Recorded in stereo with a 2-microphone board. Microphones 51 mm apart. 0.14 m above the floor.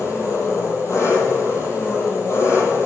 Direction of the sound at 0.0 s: 75° left (ahead or behind).